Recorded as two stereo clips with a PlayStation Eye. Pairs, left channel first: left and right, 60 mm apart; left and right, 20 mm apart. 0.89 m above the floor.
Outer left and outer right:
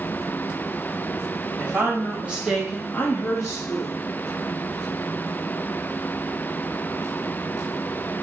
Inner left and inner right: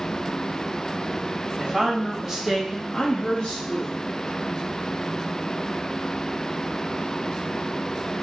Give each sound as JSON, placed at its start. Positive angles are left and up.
{"t": 1.6, "sound": "a woman speaking", "side_deg": -30, "distance_m": 2.5}